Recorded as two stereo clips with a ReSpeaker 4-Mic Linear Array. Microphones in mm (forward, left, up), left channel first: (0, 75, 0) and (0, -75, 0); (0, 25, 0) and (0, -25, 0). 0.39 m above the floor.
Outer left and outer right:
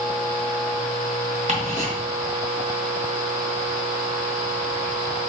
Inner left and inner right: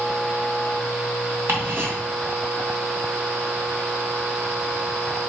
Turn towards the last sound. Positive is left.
turn(degrees=-60)  # may be behind; listen again after turning